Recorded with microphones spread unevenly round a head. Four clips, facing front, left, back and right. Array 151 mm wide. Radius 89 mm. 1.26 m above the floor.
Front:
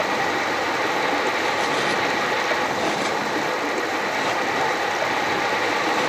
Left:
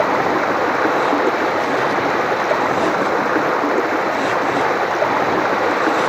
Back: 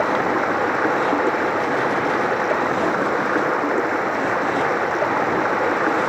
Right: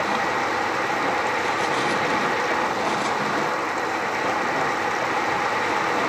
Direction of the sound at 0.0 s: 120° left.